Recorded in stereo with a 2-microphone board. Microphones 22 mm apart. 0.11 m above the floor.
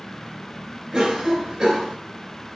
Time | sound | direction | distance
0.9 | a cough | 35° right (ahead or behind) | 2 m